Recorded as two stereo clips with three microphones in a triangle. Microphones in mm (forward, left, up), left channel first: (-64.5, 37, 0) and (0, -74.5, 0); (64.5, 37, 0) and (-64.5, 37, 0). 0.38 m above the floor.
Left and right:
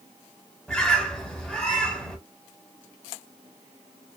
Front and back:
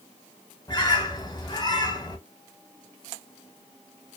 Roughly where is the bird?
Ahead left.